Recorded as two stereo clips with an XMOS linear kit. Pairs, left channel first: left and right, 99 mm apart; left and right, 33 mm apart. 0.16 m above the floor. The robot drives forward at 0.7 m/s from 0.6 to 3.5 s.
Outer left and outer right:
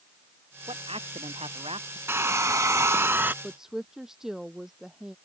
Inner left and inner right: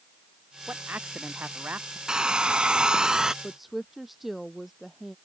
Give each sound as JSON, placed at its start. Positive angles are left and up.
{"t": 0.7, "sound": "a man speaking", "side_deg": -85}
{"t": 2.1, "sound": "a hair dryer", "side_deg": -25}
{"t": 3.4, "sound": "a woman speaking", "side_deg": -5}